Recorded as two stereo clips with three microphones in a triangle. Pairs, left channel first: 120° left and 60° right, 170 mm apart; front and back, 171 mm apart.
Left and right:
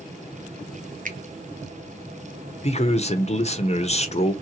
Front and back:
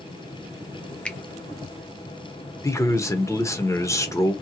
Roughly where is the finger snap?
Right.